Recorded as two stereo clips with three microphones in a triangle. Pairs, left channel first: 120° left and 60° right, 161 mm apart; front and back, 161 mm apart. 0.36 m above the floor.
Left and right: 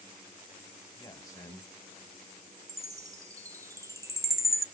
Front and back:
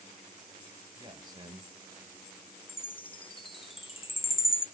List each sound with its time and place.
1.0 s a man speaking: 160° left, 1.2 m
2.7 s a chime: 10° right, 0.6 m